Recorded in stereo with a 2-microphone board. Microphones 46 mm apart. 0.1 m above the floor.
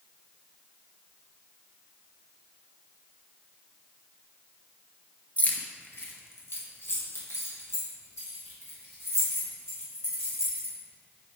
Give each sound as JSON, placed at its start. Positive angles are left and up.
{"t": 5.4, "sound": "keys jangling", "side_deg": 30, "distance_m": 0.9}